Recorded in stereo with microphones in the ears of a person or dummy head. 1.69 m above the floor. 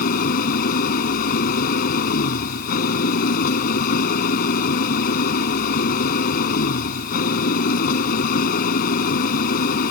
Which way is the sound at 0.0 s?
50° left (ahead or behind).